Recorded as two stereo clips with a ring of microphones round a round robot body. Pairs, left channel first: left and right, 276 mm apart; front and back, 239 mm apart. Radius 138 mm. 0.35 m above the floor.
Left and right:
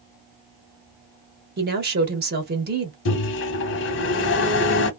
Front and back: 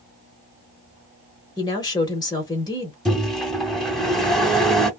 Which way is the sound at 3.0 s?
90° left.